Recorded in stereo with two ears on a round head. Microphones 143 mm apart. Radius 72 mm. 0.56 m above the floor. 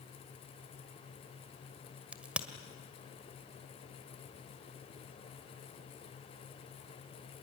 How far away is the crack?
About 1.6 m.